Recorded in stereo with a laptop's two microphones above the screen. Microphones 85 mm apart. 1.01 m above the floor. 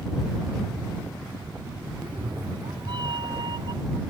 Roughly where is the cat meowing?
Right.